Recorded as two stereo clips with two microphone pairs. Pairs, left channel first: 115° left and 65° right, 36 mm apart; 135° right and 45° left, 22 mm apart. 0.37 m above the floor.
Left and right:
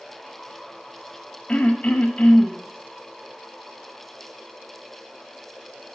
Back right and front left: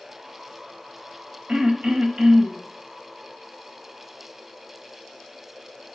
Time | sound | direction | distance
1.5 | throat clearing | 60° left | 0.9 m